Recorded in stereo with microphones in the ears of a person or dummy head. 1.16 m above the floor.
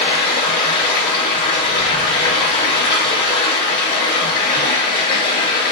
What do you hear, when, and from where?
0.0 s running water: 30° left (ahead or behind), 1.5 m